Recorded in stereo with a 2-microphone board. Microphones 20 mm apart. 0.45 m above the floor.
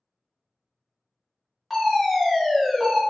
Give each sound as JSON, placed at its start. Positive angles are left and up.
{"t": 1.7, "sound": "a fire alarm", "side_deg": -10, "distance_m": 1.9}